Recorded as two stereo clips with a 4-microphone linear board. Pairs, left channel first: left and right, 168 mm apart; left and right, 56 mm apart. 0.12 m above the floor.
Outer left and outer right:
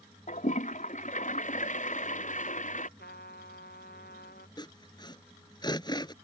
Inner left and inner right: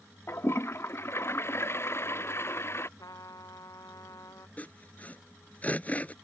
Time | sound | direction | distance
0.3 | a toilet flushing | 45° left (ahead or behind) | ?
3.0 | a trumpet | 70° left (ahead or behind) | ?
4.6 | sawing | 25° left (ahead or behind) | ?